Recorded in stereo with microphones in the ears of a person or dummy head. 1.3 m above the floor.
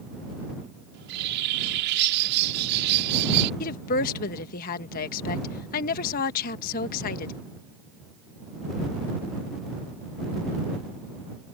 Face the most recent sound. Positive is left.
turn(degrees=45)  # may be behind; listen again after turning